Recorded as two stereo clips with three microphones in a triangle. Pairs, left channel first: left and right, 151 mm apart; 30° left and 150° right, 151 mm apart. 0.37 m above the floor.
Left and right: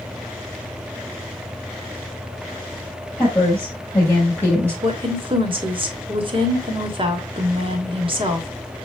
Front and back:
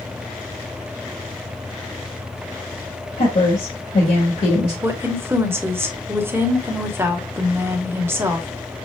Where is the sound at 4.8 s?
90° right, 1.3 m.